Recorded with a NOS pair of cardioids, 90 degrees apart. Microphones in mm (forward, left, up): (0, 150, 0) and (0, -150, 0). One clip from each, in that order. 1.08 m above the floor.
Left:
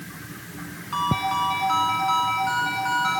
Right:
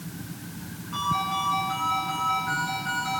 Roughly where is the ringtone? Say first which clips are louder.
Left 3 dB; ahead left.